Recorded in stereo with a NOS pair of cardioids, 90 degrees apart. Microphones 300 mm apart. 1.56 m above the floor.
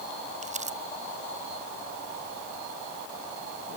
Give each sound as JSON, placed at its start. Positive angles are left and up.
{"t": 0.4, "sound": "crumpling", "azimuth_deg": -25}